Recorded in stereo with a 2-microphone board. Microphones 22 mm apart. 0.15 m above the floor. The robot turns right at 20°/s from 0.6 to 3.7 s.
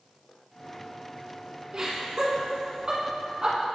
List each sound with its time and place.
1.7 s laughter: 30° right (ahead or behind), 1.3 m